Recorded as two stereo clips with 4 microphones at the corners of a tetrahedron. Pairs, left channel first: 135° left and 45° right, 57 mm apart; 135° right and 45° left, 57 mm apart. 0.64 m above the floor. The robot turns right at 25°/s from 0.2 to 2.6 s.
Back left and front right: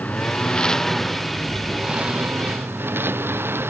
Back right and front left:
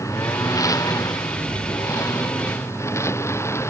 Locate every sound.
0.0 s a lawn mower: 160° right; by 3.7 s 90° right